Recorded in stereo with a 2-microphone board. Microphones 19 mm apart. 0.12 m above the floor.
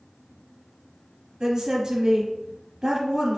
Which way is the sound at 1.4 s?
40° right (ahead or behind).